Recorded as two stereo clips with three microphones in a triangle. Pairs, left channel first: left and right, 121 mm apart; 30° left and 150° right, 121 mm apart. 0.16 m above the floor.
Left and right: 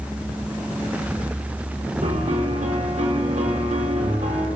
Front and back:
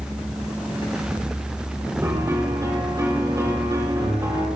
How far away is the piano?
About 4.5 m.